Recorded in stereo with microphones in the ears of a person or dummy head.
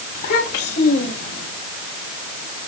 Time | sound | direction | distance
0.1 | a child speaking | 55° left (ahead or behind) | 6.5 m